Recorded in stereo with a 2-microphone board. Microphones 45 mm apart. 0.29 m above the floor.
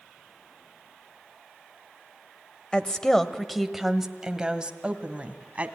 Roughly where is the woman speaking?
Centre.